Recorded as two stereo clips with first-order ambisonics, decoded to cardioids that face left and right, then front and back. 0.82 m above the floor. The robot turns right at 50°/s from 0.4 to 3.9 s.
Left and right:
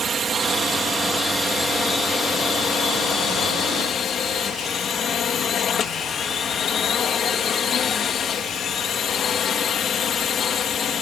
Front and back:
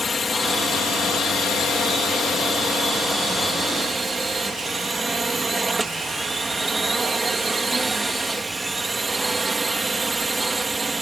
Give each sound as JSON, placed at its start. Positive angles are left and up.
{"t": 0.0, "sound": "a drone", "azimuth_deg": -60}